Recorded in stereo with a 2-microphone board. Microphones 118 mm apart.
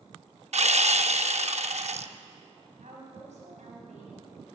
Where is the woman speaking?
75° right (ahead or behind), 4.5 m.